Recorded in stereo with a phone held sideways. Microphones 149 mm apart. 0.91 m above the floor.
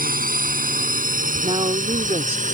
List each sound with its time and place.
0.0 s a drone: 70° right (ahead or behind); by 2.5 s 60° right (ahead or behind)
1.4 s a woman speaking: 40° right (ahead or behind)